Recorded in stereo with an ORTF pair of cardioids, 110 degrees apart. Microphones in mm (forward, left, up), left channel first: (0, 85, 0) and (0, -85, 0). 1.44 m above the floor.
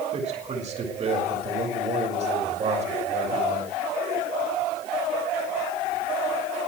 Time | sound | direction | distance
0.1 | a man speaking | 40° right | 6.5 m